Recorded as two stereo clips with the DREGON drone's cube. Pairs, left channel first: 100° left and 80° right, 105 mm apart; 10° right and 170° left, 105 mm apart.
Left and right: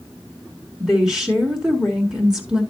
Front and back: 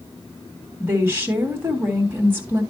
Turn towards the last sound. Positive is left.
turn(degrees=-160)